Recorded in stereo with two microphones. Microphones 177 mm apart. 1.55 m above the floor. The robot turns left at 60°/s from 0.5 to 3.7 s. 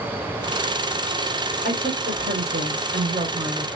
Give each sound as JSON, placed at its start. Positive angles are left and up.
{"t": 1.6, "sound": "a woman speaking", "azimuth_deg": -50, "distance_m": 1.6}